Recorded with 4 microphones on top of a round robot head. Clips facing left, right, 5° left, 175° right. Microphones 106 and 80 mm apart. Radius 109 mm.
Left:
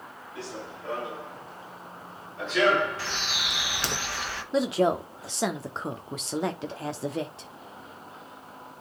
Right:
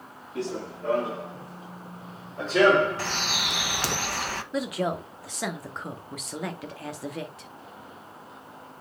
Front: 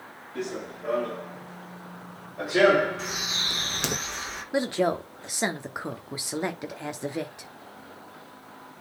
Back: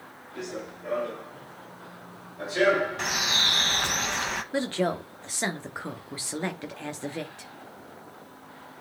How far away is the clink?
I don't hear a clink.